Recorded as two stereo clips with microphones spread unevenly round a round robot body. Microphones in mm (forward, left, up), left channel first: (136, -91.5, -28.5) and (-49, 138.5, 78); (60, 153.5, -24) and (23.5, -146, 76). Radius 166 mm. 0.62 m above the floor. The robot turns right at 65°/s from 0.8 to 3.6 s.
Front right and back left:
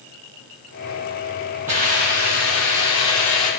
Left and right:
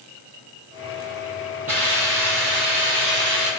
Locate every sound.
1.7 s a hiss: 165° right, 5 m; by 3.5 s 45° right, 5 m